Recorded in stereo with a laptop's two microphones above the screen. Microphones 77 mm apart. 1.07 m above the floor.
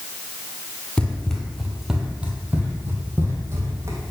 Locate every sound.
1.0 s running footsteps: 15° left (ahead or behind), 1.4 m; by 4.0 s 40° right (ahead or behind), 2 m